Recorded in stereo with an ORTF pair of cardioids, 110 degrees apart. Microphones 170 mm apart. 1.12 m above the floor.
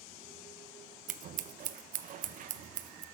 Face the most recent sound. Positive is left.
turn(degrees=-50)